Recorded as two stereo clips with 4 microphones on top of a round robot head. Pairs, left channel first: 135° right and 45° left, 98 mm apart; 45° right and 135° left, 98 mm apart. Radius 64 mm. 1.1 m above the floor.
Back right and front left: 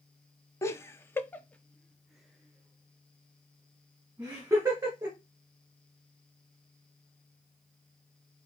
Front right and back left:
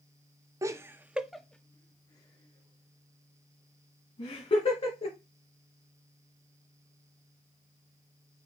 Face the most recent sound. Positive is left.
turn(degrees=-25)